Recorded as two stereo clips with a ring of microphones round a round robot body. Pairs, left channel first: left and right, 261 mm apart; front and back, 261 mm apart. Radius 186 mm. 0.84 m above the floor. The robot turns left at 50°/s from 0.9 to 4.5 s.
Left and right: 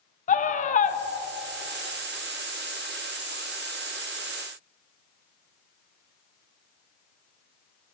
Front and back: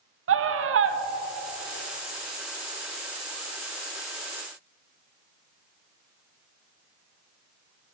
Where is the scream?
150° left, 0.7 m; by 1.0 s 145° left, 0.7 m.